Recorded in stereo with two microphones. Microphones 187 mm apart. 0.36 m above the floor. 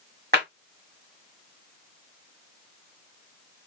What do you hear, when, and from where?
0.3 s a clap: 60° right (ahead or behind), 1.3 m